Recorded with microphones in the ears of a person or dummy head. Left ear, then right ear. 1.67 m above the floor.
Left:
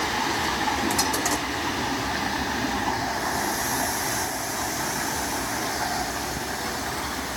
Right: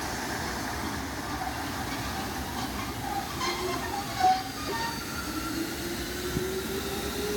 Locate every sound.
Only background noise.